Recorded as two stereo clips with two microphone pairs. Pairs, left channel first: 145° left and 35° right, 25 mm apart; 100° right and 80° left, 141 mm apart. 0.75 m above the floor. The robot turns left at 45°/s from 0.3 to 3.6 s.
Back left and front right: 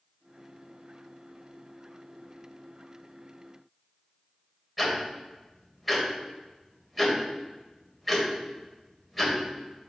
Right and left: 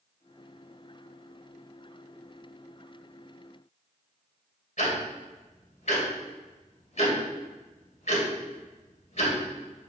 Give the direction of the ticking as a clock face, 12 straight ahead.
4 o'clock.